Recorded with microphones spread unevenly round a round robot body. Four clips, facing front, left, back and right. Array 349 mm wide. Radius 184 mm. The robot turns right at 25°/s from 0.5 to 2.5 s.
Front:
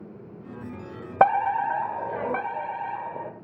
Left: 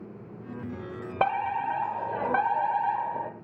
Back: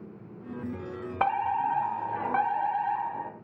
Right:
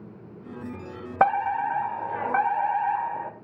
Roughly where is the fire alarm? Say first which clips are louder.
Right 5 dB, front 6 dB; ahead.